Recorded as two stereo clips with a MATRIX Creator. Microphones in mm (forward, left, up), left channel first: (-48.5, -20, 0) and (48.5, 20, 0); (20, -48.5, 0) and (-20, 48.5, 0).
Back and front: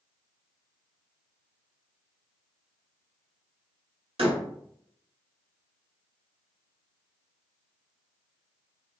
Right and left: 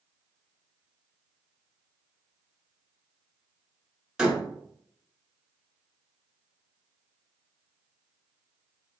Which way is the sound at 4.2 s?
30° left.